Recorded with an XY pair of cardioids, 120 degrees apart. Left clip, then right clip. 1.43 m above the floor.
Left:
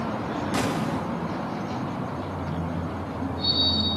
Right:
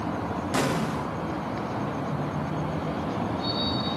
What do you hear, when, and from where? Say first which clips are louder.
0.5 s an explosion: right 2 dB; 10° right, 1.9 m